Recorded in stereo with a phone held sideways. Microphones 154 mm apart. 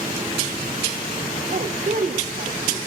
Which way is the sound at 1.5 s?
60° right (ahead or behind).